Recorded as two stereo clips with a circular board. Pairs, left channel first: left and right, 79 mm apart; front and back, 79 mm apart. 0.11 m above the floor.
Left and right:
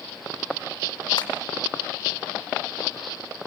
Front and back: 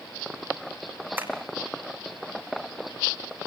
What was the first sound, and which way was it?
Tapping, 115° left.